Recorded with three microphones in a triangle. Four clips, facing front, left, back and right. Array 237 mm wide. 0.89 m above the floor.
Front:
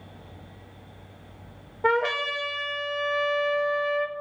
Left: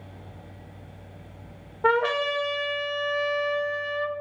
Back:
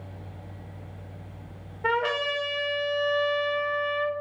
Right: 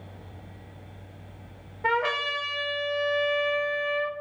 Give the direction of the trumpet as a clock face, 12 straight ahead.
10 o'clock.